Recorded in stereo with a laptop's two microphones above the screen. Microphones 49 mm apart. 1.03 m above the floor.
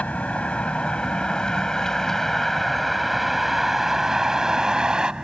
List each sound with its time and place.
0.0 s a vehicle: 30° left (ahead or behind); by 5.2 s 20° right (ahead or behind)